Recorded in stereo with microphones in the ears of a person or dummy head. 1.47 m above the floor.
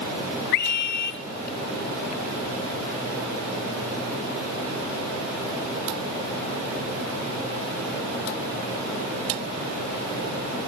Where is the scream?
55° left (ahead or behind), 0.5 m.